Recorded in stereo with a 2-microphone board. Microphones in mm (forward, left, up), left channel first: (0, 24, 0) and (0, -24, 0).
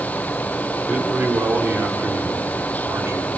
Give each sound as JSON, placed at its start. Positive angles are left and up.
{"t": 0.9, "sound": "a man speaking", "side_deg": -40, "distance_m": 3.5}